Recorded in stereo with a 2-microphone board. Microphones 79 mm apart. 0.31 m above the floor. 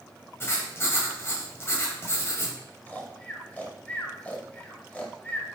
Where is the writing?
35° left (ahead or behind), 1.1 m.